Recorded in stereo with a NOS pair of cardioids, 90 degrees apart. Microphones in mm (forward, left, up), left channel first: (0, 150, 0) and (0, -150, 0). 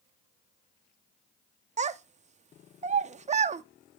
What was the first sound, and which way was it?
A child speaking, 25° right.